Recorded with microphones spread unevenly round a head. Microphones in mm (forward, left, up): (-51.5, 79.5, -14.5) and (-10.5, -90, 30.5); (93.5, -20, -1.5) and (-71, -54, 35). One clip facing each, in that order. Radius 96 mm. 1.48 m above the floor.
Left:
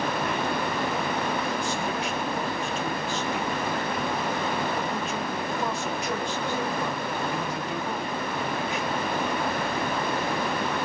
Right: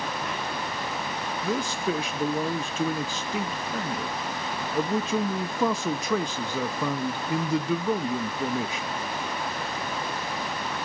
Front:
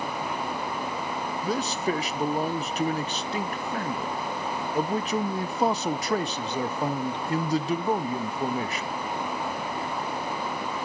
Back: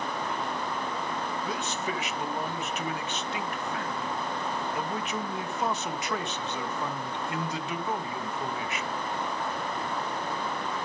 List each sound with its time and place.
1.4 s a man speaking: 45° right, 0.7 m